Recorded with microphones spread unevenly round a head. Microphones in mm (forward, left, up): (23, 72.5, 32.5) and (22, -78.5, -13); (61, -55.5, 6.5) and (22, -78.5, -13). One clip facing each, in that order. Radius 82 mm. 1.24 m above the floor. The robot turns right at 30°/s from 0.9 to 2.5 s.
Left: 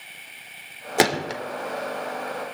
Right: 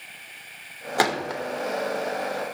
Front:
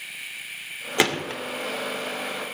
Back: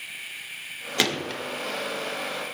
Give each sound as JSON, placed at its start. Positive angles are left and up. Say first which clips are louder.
{"t": 1.0, "sound": "a gunshot", "louder": "left 2 dB, front 3 dB", "azimuth_deg": 60, "distance_m": 0.6}